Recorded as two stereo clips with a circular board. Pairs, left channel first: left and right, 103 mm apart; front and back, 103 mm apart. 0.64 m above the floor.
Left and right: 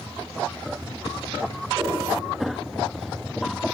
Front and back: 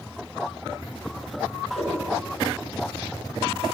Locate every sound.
1.8 s a whoosh: 20° right, 3.5 m